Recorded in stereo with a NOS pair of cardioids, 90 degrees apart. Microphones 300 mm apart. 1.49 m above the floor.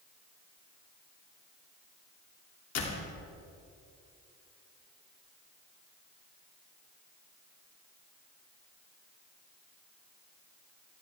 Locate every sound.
2.8 s a door slam: 60° left, 3 m